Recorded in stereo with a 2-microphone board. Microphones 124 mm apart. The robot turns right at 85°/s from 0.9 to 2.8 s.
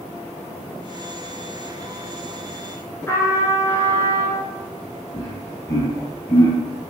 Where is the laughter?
25° left (ahead or behind), 1.9 m.